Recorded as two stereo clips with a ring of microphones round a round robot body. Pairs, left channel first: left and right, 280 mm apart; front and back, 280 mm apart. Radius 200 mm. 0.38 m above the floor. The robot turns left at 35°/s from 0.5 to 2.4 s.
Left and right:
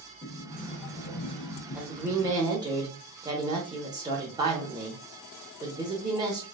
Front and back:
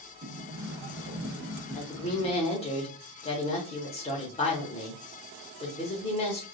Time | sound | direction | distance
0.2 | a sliding door | 150° left | 1.5 m
1.7 | a woman speaking | 10° right | 0.9 m